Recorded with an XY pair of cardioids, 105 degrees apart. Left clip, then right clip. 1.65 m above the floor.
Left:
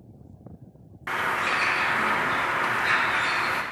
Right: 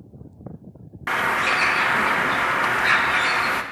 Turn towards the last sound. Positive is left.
turn(degrees=-35)